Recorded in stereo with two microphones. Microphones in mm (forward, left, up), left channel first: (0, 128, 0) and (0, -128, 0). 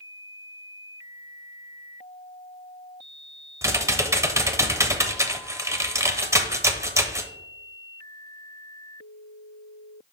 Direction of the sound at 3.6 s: 10° right (ahead or behind).